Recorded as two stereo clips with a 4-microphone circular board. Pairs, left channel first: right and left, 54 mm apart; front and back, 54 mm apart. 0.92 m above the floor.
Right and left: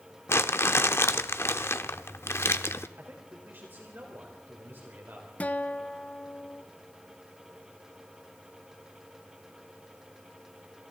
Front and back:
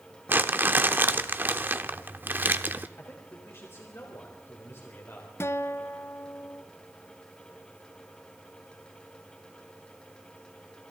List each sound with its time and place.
0.3 s crumpling: 130° right, 1.0 m
3.0 s a man speaking: 40° left, 3.5 m
5.4 s a guitar: 30° right, 0.7 m